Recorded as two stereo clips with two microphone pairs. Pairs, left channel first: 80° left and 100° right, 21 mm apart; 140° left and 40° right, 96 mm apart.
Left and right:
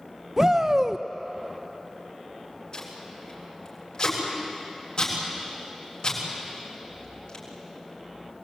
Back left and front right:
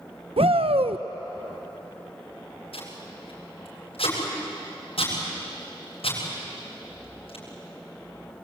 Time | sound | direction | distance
0.4 | a shout | 35° right | 0.7 m
2.7 | tape being pulled | 130° left | 7.5 m